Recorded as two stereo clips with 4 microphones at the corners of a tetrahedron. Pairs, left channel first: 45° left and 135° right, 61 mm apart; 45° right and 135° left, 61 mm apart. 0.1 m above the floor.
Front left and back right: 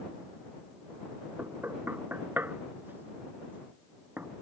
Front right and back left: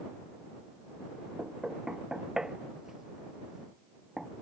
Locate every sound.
1.4 s knocking: 150° right